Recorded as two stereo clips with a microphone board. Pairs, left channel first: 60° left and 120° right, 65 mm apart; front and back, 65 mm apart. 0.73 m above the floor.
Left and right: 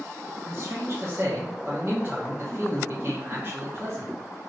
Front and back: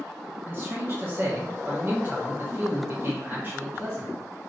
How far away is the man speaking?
About 1.0 m.